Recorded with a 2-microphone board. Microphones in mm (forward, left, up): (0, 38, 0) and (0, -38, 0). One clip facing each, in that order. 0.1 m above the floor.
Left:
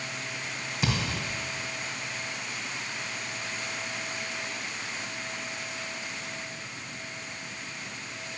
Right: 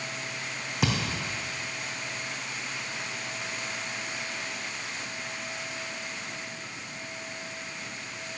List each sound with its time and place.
0.8 s a thud: 65° right (ahead or behind), 3 m